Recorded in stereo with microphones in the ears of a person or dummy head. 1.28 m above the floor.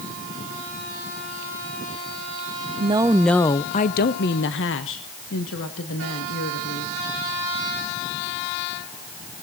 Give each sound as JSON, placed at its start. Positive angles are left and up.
{"t": 2.8, "sound": "a woman speaking", "side_deg": -30, "distance_m": 0.6}